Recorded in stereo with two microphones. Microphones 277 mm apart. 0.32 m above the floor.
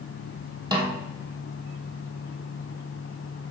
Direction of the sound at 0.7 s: 15° right (ahead or behind).